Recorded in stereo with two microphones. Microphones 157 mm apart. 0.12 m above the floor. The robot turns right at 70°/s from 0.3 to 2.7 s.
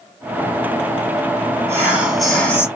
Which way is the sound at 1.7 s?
15° right (ahead or behind).